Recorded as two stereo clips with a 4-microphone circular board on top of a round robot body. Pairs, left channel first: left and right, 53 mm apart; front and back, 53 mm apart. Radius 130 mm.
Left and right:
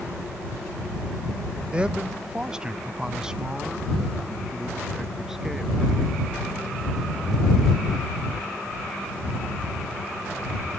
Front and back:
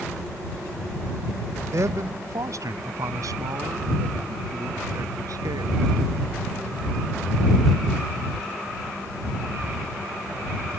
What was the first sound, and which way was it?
A man speaking, 160° right.